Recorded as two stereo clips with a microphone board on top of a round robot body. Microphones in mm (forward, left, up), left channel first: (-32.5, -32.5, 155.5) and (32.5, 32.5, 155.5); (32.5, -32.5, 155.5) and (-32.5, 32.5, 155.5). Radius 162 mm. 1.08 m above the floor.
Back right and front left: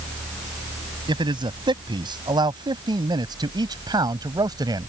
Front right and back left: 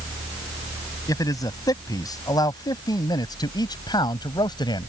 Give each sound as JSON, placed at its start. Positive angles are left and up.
{"t": 1.1, "sound": "a man speaking", "azimuth_deg": 5}